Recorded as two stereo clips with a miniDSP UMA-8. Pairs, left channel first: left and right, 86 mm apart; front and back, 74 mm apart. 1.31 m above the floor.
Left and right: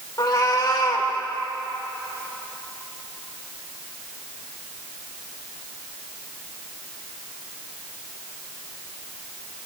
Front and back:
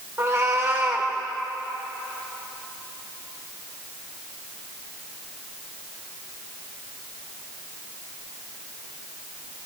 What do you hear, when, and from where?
0.2 s a cat meowing: 135° left, 2.5 m